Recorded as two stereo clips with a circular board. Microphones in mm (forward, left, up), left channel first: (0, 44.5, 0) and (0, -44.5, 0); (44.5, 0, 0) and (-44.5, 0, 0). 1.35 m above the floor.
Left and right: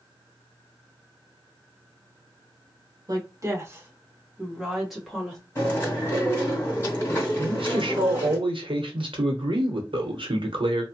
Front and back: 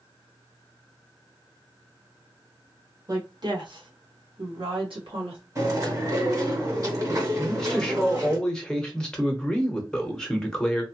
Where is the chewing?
145° left, 1.8 m.